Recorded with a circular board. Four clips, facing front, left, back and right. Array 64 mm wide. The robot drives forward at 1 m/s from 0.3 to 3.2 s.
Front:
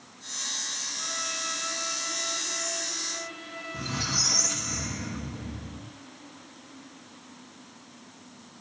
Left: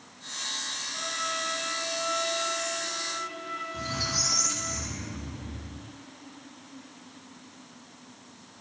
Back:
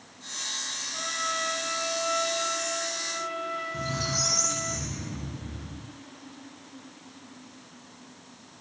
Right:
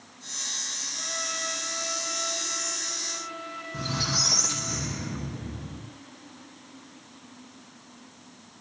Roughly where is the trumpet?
Behind left.